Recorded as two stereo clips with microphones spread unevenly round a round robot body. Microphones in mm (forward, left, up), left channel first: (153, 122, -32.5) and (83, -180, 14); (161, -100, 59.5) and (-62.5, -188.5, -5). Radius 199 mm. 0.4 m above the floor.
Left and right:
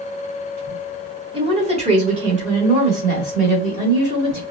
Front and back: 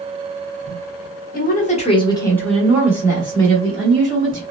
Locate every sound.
1.3 s a woman speaking: 30° right, 1.0 m; by 4.4 s straight behind, 1.4 m